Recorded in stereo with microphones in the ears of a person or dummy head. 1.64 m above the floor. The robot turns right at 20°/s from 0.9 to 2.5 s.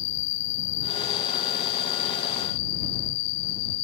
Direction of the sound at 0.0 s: 50° left.